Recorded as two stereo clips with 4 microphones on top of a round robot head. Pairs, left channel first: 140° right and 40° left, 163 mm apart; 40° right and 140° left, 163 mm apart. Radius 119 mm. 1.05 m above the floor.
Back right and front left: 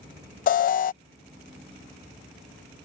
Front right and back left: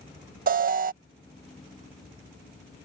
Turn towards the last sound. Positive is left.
turn(degrees=180)